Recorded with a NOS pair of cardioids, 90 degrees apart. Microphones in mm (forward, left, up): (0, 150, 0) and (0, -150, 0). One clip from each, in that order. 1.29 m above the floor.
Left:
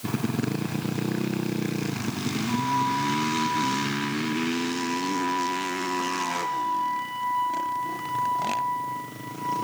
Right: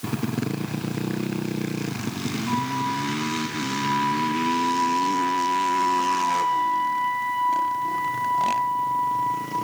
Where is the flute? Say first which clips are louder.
Left 1 dB; 60° right, 4 m.